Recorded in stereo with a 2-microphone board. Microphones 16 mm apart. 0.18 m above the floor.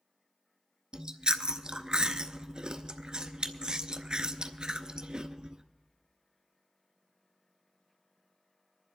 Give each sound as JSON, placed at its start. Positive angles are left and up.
{"t": 0.9, "sound": "chewing", "side_deg": -60, "distance_m": 0.7}